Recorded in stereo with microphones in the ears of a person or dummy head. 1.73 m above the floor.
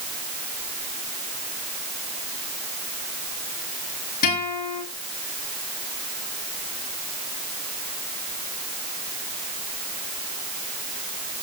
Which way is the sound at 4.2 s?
45° left (ahead or behind).